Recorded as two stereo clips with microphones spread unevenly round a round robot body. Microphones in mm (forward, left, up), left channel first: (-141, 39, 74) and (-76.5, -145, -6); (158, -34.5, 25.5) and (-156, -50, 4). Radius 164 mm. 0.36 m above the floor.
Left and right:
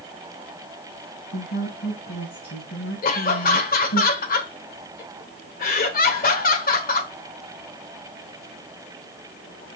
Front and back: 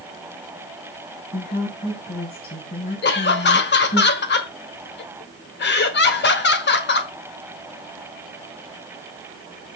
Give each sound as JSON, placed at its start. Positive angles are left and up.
{"t": 1.3, "sound": "a woman speaking", "azimuth_deg": 65, "distance_m": 3.5}
{"t": 3.0, "sound": "laughter", "azimuth_deg": 50, "distance_m": 1.1}